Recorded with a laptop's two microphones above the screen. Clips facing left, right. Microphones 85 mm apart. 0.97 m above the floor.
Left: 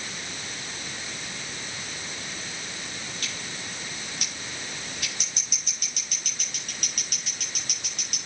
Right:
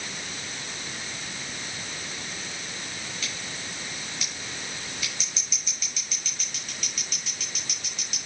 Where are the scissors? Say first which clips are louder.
Even; 55° left (ahead or behind), 6 m.